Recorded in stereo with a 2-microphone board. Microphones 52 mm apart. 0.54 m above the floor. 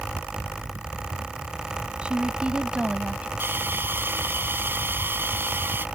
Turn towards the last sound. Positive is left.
turn(degrees=-45)  # may be behind; listen again after turning